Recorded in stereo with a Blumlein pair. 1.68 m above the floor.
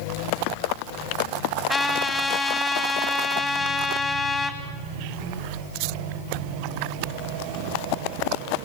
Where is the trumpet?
5° left, 3.5 m.